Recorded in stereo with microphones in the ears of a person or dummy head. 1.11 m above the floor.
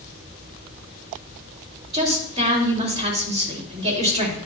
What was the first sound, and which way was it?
A woman speaking, 25° right (ahead or behind).